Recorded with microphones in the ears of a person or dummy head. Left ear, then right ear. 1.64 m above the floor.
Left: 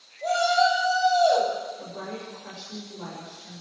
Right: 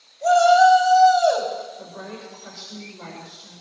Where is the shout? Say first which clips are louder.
Right 8 dB; 60° right (ahead or behind), 9.5 m.